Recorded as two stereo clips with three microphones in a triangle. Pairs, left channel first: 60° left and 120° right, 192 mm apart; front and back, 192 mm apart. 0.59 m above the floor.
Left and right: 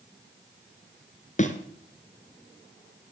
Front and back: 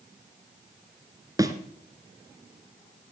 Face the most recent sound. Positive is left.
turn(degrees=110)